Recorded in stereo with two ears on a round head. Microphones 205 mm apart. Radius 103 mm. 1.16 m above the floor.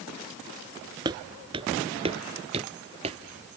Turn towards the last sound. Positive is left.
turn(degrees=-25)  # may be behind; listen again after turning